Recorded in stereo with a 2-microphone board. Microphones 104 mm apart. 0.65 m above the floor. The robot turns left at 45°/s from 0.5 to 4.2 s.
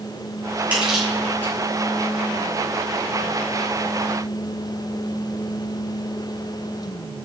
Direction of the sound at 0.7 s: 15° right (ahead or behind).